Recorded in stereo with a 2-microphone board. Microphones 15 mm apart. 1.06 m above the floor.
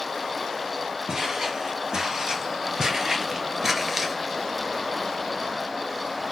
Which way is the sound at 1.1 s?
55° right (ahead or behind).